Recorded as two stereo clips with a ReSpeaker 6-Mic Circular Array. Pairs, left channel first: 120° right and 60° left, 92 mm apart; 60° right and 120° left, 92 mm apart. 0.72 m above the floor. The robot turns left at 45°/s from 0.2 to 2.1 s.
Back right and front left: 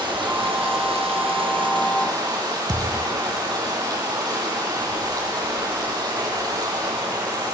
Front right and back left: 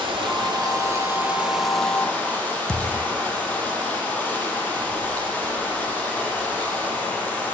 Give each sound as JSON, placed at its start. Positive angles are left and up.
{"t": 0.0, "sound": "running water", "azimuth_deg": 100, "distance_m": 8.0}
{"t": 2.7, "sound": "a thud", "azimuth_deg": 20, "distance_m": 1.3}